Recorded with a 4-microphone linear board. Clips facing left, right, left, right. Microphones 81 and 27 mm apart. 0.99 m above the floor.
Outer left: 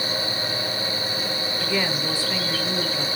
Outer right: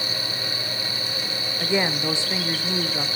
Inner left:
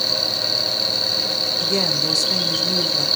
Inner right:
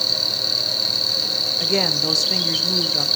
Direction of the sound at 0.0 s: Centre (ahead or behind).